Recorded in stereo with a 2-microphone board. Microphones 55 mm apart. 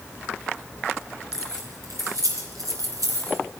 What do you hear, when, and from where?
1.3 s keys jangling: 80° right, 6 m